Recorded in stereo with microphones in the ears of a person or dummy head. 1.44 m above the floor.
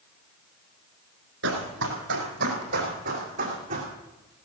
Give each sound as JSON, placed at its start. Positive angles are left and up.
{"t": 1.4, "sound": "running footsteps", "side_deg": -65, "distance_m": 3.5}